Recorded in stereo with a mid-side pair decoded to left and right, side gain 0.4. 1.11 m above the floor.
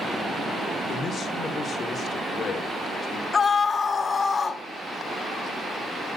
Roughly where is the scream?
Ahead left.